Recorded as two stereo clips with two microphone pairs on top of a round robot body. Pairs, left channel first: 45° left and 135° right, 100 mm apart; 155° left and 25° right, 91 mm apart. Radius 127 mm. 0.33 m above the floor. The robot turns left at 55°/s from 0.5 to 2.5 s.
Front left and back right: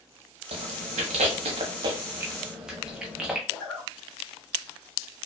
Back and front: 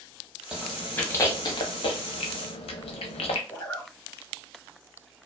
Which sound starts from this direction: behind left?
A zipper, at 3.5 s.